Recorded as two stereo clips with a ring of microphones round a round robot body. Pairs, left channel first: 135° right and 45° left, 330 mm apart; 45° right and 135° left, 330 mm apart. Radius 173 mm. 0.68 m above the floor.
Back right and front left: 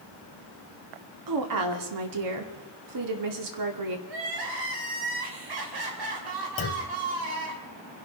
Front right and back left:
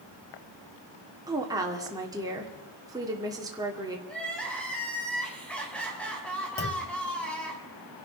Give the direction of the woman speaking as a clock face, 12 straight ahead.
10 o'clock.